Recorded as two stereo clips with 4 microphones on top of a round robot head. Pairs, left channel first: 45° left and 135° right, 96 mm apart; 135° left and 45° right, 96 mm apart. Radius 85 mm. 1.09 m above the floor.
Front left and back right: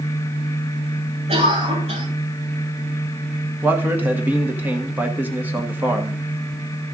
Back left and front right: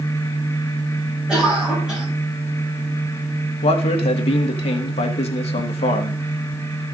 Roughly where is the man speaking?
Behind left.